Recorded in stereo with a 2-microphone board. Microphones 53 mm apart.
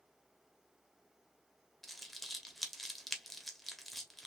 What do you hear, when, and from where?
1.8 s crumpling: centre (ahead or behind), 1.0 m